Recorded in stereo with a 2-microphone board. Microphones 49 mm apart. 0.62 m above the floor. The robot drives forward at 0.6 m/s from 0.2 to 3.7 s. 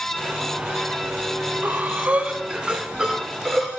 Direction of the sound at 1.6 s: 35° right (ahead or behind).